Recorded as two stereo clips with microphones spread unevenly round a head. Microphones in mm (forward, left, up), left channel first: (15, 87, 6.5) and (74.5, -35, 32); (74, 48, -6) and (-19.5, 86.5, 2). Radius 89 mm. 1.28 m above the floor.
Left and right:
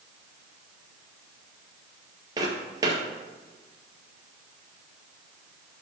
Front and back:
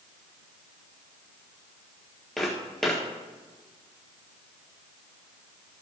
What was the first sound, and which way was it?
Footsteps, 110° right.